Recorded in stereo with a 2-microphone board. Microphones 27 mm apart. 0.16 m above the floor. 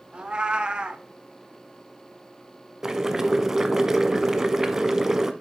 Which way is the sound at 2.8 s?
15° right (ahead or behind).